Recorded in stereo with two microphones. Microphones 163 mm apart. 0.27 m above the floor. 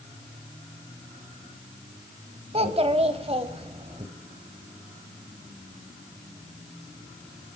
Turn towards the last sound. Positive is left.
turn(degrees=-40)  # may be behind; listen again after turning